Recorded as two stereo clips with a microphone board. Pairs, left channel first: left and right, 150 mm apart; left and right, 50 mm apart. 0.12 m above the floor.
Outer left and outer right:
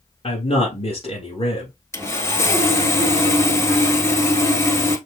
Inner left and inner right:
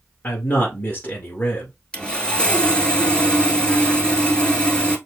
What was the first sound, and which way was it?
A man speaking, 40° left (ahead or behind).